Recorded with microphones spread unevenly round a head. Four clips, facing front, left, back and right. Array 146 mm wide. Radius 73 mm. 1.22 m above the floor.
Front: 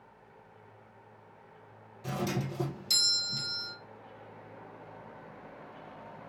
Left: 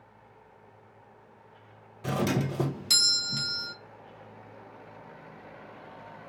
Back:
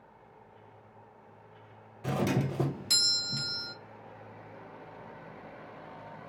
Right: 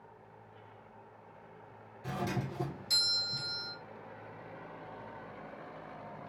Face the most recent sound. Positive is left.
turn(degrees=120)